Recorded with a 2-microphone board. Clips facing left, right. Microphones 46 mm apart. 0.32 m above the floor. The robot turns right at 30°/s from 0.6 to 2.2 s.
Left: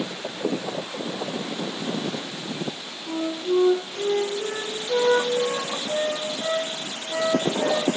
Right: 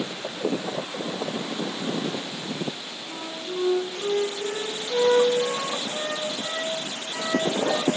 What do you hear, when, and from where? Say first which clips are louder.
3.1 s a flute: left 10 dB; 45° left (ahead or behind), 2 m